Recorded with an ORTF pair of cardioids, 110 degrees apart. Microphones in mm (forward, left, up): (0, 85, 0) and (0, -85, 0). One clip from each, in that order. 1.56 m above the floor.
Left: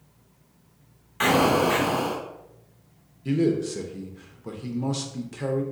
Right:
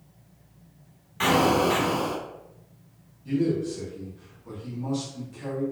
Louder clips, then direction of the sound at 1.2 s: Left 1 dB; 10° left.